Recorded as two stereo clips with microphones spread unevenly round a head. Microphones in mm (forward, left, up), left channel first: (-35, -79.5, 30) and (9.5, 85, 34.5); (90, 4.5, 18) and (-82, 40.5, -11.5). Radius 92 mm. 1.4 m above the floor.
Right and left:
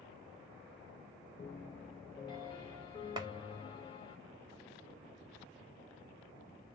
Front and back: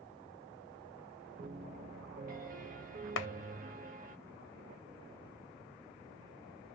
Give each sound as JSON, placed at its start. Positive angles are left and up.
{"t": 1.4, "sound": "a piano", "azimuth_deg": -160, "distance_m": 0.6}
{"t": 3.2, "sound": "a clap", "azimuth_deg": 5, "distance_m": 0.5}